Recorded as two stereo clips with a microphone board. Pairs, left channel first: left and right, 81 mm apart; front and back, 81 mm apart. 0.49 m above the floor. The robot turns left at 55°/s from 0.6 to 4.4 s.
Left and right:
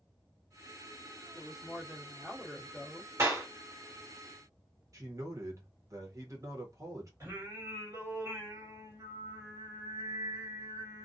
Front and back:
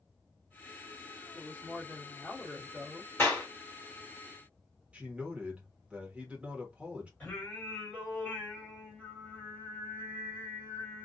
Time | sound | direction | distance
1.3 | a woman speaking | 10° left | 1.2 m
3.2 | a clap | 45° right | 1.4 m
4.9 | a man speaking | 110° right | 1.0 m
7.2 | singing | 65° right | 1.7 m